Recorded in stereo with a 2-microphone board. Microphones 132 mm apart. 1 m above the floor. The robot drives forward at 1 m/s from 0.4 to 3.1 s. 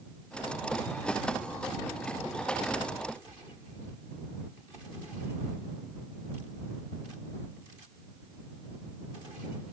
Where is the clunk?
I don't hear a clunk.